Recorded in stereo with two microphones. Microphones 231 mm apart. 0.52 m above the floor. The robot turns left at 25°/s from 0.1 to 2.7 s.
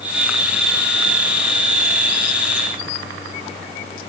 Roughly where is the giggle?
No giggle in this recording.